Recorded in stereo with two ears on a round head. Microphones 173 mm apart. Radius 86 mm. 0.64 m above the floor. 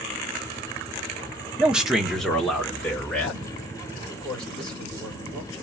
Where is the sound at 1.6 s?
5° right (ahead or behind), 0.9 m; by 3.5 s 10° left (ahead or behind), 2.5 m.